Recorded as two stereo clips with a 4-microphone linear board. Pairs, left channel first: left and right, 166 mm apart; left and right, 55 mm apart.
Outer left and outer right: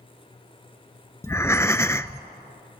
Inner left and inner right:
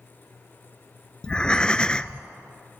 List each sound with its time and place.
1.2 s breathing: 15° left (ahead or behind), 0.5 m